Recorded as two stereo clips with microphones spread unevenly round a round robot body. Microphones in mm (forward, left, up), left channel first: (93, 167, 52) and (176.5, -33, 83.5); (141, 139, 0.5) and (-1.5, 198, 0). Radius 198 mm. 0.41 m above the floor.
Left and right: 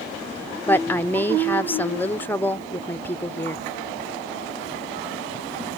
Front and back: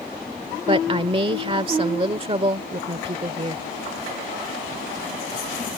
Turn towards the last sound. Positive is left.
turn(degrees=175)